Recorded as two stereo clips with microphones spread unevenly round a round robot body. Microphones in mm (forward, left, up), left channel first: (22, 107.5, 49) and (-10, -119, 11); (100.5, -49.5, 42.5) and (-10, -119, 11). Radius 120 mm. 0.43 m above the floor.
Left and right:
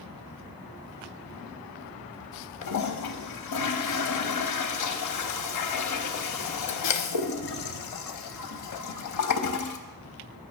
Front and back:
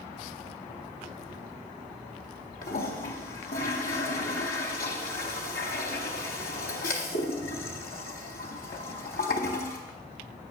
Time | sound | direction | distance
2.6 | a toilet flushing | 75° left | 0.6 m